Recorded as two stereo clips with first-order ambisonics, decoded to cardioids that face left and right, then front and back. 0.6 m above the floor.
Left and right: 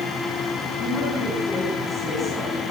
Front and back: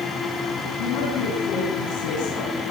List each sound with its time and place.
0.8 s a woman speaking: 15° left, 5.5 m